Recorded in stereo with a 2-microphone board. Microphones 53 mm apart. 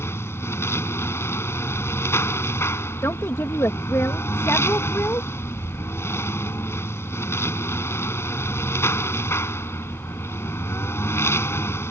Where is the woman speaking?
60° left (ahead or behind).